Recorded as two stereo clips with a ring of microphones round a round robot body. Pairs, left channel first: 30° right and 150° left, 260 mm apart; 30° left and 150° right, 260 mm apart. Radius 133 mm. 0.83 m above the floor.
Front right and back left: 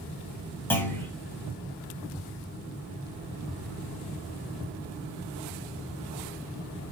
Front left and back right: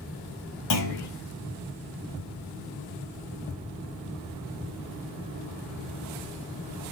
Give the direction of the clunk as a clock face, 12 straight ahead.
10 o'clock.